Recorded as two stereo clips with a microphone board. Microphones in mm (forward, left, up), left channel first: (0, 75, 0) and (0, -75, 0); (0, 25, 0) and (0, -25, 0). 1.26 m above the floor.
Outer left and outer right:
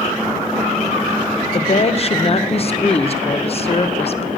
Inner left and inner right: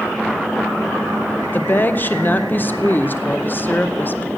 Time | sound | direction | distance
1.5 | a woman speaking | 40° left (ahead or behind) | 0.5 m